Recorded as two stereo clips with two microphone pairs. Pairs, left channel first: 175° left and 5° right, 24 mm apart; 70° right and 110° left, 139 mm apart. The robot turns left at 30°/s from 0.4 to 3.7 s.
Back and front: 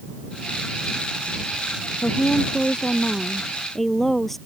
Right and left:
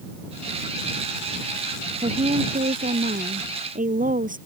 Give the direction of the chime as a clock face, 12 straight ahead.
No chime in this recording.